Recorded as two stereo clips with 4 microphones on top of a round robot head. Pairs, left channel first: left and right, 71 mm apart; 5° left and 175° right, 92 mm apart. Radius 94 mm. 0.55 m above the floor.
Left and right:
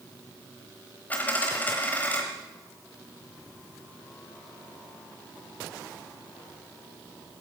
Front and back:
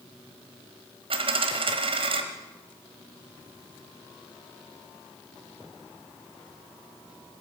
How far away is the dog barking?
I don't hear a dog barking.